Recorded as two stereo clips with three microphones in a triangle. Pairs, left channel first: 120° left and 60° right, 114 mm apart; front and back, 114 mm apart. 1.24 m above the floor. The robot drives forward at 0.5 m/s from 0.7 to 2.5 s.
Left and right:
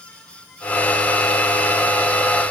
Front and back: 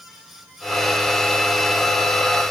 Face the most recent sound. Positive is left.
No sound to turn to.